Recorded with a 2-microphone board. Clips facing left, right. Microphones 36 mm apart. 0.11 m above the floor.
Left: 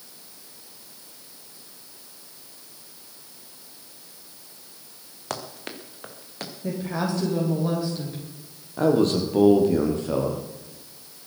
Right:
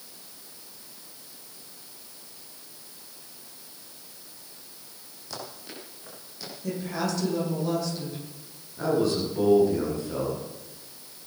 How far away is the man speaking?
About 4 m.